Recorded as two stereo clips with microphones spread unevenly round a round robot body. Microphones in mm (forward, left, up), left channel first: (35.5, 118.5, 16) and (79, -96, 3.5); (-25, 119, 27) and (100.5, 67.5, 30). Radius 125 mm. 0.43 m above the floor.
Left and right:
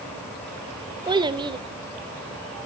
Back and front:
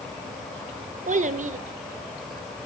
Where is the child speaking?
15° right, 0.7 m.